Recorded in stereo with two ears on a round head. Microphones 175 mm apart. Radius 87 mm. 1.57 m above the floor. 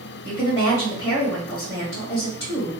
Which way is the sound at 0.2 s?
15° left (ahead or behind).